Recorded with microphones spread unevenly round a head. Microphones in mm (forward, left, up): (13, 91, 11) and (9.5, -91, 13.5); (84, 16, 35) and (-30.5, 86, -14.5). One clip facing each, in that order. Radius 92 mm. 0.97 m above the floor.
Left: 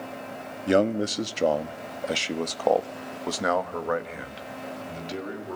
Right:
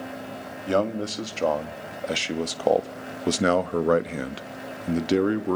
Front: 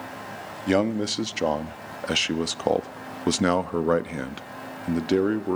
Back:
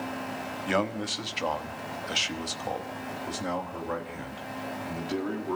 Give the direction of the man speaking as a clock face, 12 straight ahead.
11 o'clock.